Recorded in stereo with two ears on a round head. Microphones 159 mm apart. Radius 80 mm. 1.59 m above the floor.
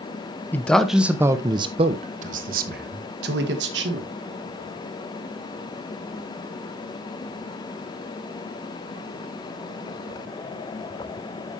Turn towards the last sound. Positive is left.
turn(degrees=-70)  # may be behind; listen again after turning